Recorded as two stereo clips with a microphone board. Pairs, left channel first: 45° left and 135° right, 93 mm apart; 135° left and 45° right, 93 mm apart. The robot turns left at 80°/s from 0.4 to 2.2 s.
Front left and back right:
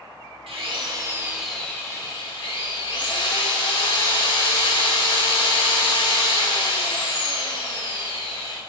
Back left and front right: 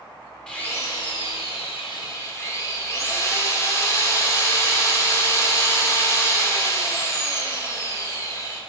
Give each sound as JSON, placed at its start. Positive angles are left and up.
{"t": 0.5, "sound": "a drill", "azimuth_deg": -145, "distance_m": 1.6}